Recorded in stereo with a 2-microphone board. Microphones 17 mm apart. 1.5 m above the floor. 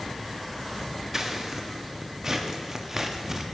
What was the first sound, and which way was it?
Scissors, 30° right (ahead or behind).